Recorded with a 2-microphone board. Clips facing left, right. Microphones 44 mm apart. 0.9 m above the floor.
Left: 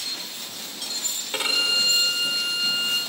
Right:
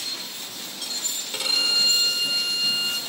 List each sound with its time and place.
1.3 s a violin: 25° left (ahead or behind), 3.5 m